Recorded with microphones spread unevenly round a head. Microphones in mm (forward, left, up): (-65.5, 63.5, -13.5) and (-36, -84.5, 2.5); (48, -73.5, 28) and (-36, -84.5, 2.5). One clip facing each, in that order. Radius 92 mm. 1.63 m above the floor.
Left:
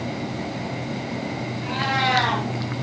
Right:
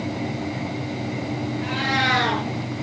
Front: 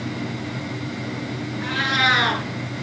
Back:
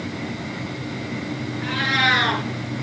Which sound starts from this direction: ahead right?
A cat meowing, at 1.6 s.